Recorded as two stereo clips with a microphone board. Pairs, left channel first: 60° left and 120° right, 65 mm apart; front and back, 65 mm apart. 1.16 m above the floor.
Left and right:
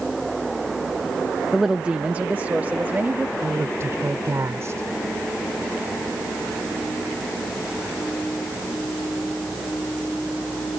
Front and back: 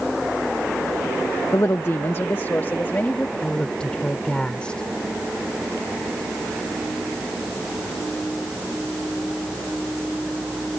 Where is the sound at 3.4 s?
75° right.